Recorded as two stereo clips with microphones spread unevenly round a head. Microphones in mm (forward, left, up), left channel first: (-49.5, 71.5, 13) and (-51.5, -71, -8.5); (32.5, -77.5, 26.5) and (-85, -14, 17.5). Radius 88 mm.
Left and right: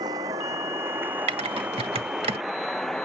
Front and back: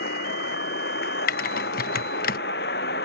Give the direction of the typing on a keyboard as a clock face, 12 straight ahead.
1 o'clock.